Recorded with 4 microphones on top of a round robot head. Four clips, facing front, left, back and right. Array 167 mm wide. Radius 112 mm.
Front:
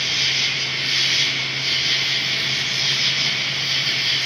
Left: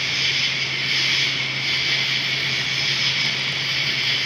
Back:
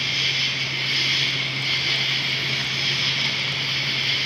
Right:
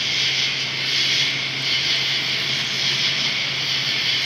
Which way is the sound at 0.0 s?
45° right.